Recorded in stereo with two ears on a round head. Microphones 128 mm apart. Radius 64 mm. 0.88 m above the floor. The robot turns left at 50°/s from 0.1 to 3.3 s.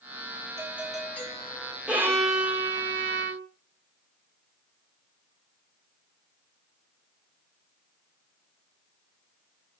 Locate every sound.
0.6 s a doorbell: 160° right, 7 m; by 1.8 s 140° left, 7 m
1.9 s a violin: 5° right, 2 m; by 3.5 s 80° right, 2 m